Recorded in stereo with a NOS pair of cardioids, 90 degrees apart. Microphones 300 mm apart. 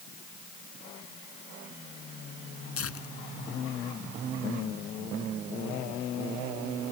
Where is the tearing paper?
50° left.